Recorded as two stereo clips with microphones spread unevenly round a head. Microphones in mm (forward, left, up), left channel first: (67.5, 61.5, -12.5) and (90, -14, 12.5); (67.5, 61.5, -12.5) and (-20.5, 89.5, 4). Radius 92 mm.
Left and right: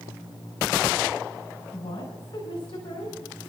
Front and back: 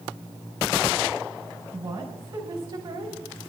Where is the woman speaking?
135° left, 3 m.